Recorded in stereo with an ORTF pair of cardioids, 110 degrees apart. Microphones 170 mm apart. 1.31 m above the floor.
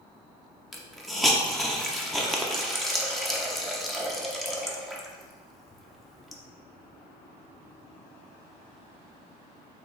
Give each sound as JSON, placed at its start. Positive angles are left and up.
{"t": 0.7, "sound": "a hiss", "azimuth_deg": 0, "distance_m": 0.7}